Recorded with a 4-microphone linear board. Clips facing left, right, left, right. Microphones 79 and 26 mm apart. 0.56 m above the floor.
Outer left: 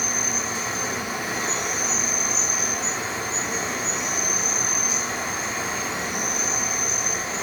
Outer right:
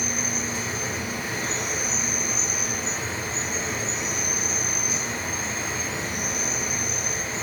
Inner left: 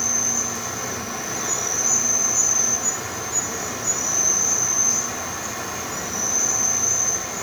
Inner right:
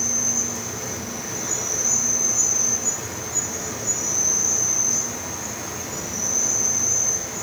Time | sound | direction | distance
0.0 | an insect | 70° left (ahead or behind) | 0.7 m